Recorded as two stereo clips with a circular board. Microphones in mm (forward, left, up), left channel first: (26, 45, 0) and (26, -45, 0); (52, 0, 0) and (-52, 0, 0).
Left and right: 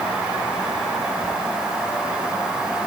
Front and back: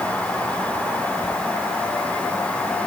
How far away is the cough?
No cough in this recording.